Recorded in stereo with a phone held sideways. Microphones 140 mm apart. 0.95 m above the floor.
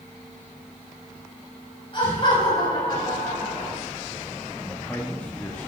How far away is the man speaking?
About 1.4 m.